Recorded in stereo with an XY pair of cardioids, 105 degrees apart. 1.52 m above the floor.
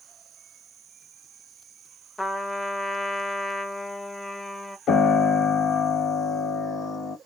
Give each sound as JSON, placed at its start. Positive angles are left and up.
{"t": 2.2, "sound": "a trumpet", "azimuth_deg": 5, "distance_m": 0.7}
{"t": 4.9, "sound": "a piano", "azimuth_deg": 65, "distance_m": 0.9}